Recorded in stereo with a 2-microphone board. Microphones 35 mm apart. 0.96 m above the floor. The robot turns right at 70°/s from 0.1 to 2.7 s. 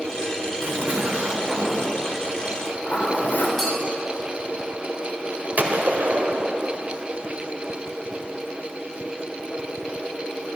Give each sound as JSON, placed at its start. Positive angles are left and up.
{"t": 0.6, "sound": "a zipper", "azimuth_deg": -85, "distance_m": 2.5}
{"t": 3.6, "sound": "a clink", "side_deg": 15, "distance_m": 4.5}
{"t": 5.6, "sound": "a gunshot", "side_deg": -50, "distance_m": 1.8}